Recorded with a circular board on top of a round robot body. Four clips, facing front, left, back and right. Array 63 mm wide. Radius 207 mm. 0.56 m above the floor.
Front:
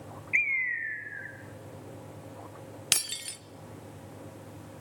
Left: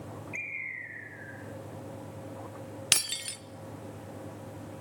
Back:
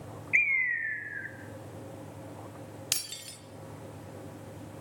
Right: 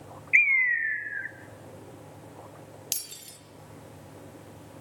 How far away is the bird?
About 0.7 m.